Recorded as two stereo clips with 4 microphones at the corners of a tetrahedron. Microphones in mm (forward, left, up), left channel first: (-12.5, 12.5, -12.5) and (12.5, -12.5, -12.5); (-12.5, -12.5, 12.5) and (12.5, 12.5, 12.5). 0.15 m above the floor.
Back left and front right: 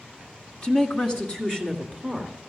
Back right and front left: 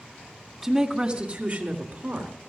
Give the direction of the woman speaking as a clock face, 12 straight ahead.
8 o'clock.